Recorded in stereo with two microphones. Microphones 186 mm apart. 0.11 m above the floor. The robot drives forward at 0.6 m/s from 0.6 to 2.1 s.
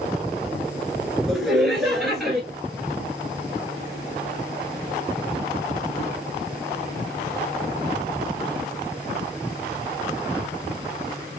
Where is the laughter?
Centre (ahead or behind), 1.3 m.